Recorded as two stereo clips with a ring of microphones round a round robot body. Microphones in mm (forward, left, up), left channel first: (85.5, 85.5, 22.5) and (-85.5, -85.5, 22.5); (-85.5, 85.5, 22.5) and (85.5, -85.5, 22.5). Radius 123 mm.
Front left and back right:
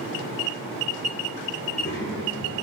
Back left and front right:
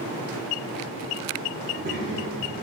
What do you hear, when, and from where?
1.6 s a child speaking: straight ahead, 2 m